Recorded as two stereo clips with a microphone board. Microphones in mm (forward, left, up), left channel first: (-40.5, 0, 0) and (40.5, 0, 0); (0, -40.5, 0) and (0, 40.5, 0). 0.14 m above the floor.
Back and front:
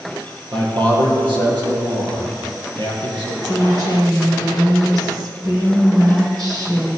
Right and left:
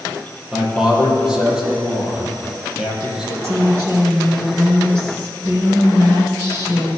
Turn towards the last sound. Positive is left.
turn(degrees=35)